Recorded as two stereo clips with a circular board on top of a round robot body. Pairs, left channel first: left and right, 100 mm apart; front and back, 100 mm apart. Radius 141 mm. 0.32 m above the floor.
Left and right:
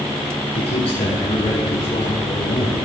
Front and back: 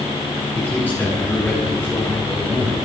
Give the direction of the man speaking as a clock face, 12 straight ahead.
10 o'clock.